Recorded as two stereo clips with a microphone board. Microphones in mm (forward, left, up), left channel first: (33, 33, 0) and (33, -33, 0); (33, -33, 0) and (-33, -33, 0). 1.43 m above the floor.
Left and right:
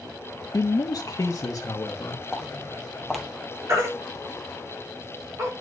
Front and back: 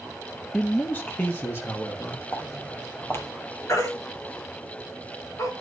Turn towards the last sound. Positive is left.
turn(degrees=-45)